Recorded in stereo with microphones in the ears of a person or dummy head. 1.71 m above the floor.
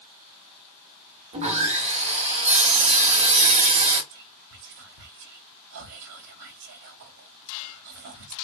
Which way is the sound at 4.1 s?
55° right (ahead or behind).